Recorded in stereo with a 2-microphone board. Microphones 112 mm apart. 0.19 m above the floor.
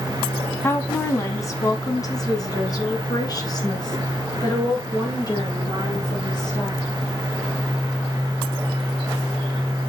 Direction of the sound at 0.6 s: 25° left (ahead or behind).